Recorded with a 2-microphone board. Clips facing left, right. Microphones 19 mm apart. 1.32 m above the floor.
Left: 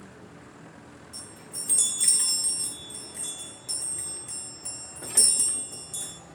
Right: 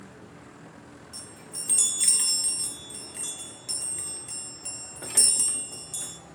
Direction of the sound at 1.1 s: 25° right (ahead or behind).